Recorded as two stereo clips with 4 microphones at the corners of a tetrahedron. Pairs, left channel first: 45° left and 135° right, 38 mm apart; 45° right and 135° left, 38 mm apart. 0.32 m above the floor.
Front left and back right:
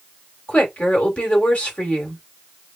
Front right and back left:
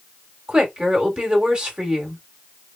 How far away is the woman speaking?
About 1.4 m.